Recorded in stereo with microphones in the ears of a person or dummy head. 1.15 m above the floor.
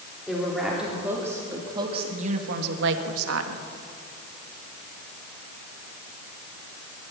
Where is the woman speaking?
5° left (ahead or behind), 3.5 m; by 3.6 s 80° right, 2.0 m.